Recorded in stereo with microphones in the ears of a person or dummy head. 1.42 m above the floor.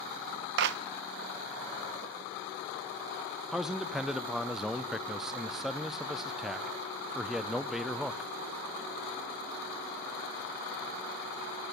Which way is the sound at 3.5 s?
5° right (ahead or behind).